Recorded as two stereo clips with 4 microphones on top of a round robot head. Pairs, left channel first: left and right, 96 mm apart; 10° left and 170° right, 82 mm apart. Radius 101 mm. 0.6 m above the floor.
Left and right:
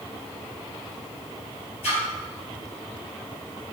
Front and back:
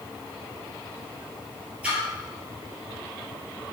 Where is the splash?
120° left, 2.5 m.